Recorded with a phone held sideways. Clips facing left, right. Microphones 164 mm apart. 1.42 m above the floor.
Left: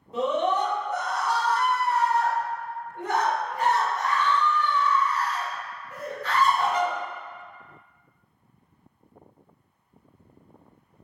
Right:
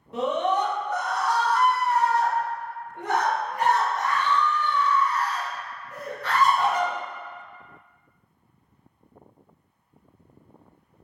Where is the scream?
75° right (ahead or behind), 1.5 m.